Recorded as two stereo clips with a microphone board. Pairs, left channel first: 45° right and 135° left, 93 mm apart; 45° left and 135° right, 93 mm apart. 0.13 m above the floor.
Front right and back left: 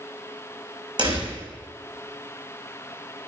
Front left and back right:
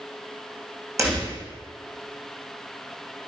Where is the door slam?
170° left, 5 m.